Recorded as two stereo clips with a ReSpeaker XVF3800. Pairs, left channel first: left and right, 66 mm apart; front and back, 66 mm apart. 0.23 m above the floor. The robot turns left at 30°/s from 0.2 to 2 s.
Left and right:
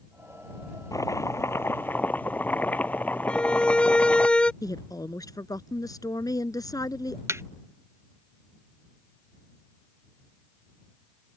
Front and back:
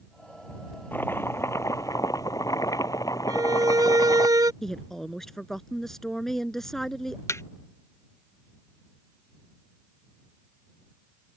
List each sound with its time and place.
0.9 s chopping: 60° left; by 4.3 s 25° left
3.3 s a violin: 165° left
4.6 s a woman speaking: 85° left
7.3 s a thud: 45° right